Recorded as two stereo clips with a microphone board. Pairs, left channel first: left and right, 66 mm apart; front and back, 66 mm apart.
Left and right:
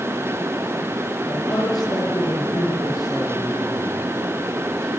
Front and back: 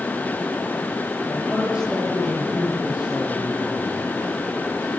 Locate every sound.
1.3 s a man speaking: 105° left, 8 m